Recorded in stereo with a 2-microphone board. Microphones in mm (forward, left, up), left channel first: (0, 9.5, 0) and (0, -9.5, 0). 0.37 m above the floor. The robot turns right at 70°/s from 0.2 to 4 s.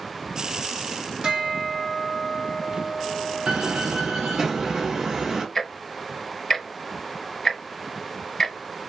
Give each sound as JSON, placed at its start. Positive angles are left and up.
{"t": 1.2, "sound": "a bell", "azimuth_deg": -55, "distance_m": 2.0}
{"t": 3.5, "sound": "a door slam", "azimuth_deg": -65, "distance_m": 2.5}
{"t": 5.5, "sound": "ticking", "side_deg": 20, "distance_m": 0.7}